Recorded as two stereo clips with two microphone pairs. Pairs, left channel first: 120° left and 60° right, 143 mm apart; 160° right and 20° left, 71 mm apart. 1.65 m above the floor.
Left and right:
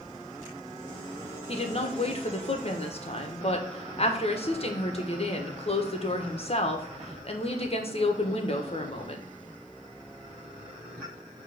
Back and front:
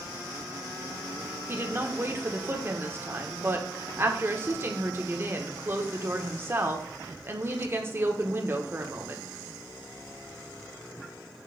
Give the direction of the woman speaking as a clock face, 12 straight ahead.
10 o'clock.